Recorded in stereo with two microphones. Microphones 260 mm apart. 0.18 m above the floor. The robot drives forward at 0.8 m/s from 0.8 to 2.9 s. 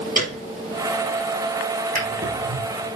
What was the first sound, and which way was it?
A piano, 35° right (ahead or behind).